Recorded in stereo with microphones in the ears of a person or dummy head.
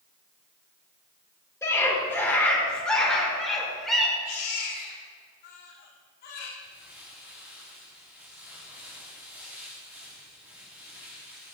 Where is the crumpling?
5° right (ahead or behind), 4 m.